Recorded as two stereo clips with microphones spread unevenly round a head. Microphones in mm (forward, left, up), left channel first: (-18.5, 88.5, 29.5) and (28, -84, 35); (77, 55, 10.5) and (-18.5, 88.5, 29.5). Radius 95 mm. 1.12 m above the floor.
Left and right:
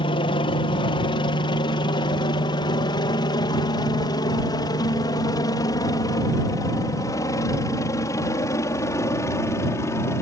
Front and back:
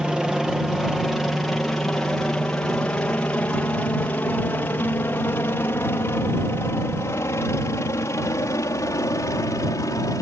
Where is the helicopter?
70° left; by 10.2 s 30° left.